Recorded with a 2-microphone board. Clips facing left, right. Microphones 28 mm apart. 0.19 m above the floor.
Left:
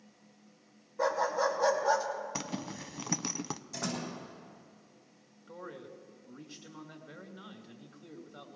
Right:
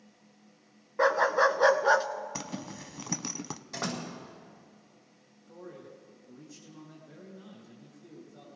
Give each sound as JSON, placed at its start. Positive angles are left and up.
{"t": 1.0, "sound": "a dog barking", "side_deg": -65, "distance_m": 1.0}
{"t": 2.4, "sound": "a zipper", "side_deg": 10, "distance_m": 0.5}
{"t": 3.7, "sound": "a door slam", "side_deg": -45, "distance_m": 8.0}
{"t": 5.5, "sound": "a man speaking", "side_deg": 55, "distance_m": 3.0}